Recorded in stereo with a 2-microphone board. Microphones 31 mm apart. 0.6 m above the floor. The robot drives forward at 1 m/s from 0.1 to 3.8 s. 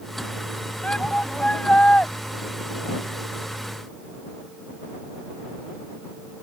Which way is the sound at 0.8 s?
45° left (ahead or behind).